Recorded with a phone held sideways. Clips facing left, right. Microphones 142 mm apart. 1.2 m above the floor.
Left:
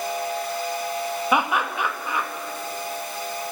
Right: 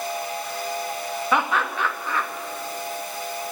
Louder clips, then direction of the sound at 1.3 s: Even; 15° left (ahead or behind).